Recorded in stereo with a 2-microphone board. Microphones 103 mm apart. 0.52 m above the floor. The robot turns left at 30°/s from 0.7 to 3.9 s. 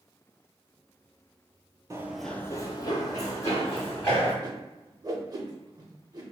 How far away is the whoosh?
About 0.6 m.